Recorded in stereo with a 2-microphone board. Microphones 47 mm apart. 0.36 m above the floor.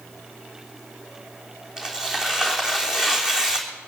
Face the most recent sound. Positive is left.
turn(degrees=-15)  # may be behind; listen again after turning